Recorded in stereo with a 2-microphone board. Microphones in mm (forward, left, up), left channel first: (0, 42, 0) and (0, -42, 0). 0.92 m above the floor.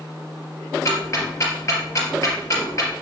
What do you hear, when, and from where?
0.8 s ticking: 40° left (ahead or behind), 3.5 m